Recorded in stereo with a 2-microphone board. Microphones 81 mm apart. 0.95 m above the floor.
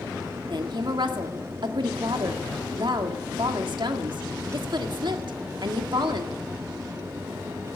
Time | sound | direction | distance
0.5 | a woman speaking | 65° right (ahead or behind) | 1.8 m